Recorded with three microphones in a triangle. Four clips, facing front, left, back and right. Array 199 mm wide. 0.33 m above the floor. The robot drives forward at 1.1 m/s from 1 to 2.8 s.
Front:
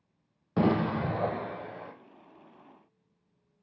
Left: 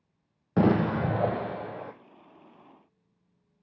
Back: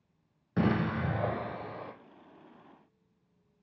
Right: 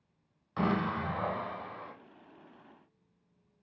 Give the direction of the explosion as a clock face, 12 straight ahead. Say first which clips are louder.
Left 7 dB, front 3 dB; 9 o'clock.